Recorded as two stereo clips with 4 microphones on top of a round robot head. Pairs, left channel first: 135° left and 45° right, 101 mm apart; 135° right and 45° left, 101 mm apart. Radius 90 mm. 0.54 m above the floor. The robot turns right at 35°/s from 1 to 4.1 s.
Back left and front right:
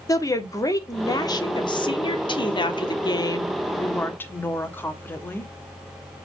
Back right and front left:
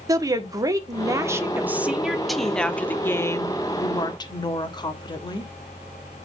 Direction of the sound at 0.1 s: 90° left.